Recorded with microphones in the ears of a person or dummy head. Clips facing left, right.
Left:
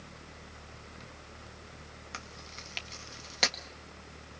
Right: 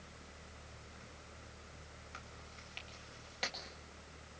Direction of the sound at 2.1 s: 75° left (ahead or behind).